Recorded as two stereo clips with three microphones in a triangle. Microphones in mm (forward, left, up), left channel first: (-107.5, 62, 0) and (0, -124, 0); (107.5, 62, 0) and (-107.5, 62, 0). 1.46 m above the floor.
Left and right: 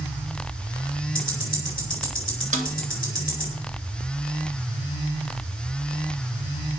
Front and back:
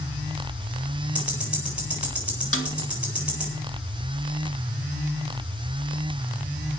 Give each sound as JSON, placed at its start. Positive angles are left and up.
{"t": 1.1, "sound": "ticking", "azimuth_deg": 95, "distance_m": 8.0}
{"t": 2.5, "sound": "a snare drum", "azimuth_deg": -5, "distance_m": 1.8}